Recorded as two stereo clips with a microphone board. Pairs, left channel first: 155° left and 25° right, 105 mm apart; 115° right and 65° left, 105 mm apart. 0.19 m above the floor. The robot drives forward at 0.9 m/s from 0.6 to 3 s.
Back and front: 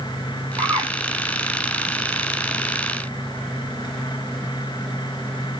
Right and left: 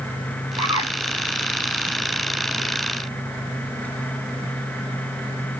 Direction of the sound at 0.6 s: 30° left.